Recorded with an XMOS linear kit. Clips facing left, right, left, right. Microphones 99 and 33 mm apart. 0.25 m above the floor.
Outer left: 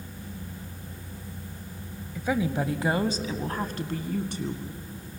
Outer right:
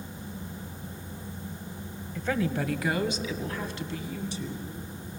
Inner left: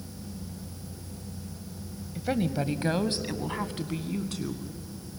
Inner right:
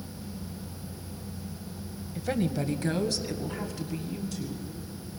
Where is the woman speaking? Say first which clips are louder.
Outer left 2 dB, inner left 1 dB; 5° left (ahead or behind), 1.0 m; by 4.7 s 60° left (ahead or behind), 2 m.